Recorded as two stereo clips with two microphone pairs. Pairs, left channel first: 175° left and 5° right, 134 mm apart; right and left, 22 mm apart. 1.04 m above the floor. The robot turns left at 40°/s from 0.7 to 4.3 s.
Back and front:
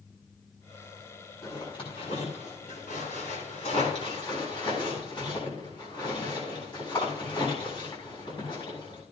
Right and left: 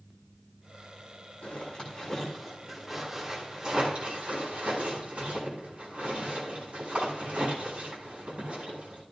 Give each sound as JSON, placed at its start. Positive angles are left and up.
{"t": 1.4, "sound": "a zipper", "azimuth_deg": -120, "distance_m": 6.5}